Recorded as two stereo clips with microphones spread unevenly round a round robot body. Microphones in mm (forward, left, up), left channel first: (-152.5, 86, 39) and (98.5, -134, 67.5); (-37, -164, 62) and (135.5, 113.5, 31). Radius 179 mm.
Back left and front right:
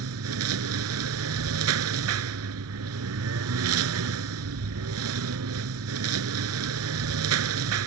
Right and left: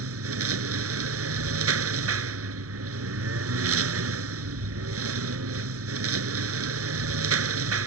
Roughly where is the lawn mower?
Ahead.